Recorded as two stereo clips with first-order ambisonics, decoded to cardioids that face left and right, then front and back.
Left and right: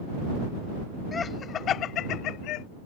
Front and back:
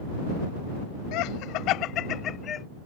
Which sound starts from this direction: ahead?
Laughter, at 1.1 s.